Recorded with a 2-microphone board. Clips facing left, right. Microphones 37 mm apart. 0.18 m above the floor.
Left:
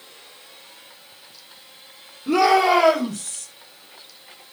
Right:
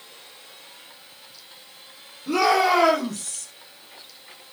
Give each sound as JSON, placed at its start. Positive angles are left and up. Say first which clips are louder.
{"t": 2.3, "sound": "a shout", "louder": "left 3 dB", "side_deg": 30, "distance_m": 5.0}